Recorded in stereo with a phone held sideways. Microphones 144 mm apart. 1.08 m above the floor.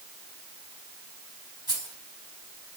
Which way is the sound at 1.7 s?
30° right (ahead or behind).